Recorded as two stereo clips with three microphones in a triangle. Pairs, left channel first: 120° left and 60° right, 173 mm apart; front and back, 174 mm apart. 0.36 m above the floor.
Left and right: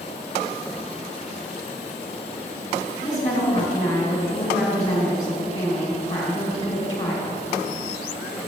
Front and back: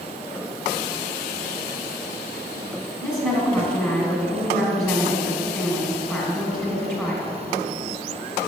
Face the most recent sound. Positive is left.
turn(degrees=65)